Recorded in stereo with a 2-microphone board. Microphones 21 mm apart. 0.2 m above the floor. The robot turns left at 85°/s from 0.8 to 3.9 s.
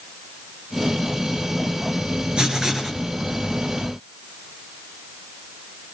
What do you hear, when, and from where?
2.4 s writing: 120° right, 3.5 m; by 3.0 s 170° right, 3.5 m